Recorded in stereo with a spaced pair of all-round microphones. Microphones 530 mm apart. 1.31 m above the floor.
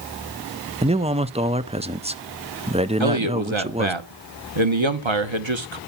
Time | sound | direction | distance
0.8 | a man speaking | 15° right (ahead or behind) | 0.5 m
3.0 | a man speaking | 60° right (ahead or behind) | 1.2 m